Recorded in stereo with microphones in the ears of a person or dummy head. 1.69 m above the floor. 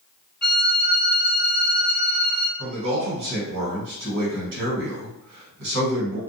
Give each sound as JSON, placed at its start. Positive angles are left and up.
{"t": 0.4, "sound": "a violin", "side_deg": 15, "distance_m": 0.9}
{"t": 2.6, "sound": "a man speaking", "side_deg": -70, "distance_m": 1.4}